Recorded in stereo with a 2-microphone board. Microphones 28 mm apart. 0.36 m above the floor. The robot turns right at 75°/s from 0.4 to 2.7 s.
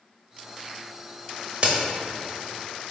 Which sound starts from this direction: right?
A crack, at 1.6 s.